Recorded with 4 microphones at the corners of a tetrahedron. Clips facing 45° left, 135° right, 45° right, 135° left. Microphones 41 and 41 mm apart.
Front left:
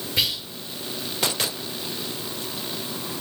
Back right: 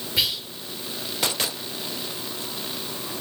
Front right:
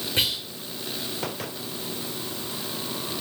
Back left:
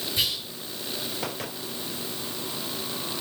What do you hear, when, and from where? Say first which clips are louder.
0.2 s whispering: even, front right 3 dB; 50° right, 1.4 m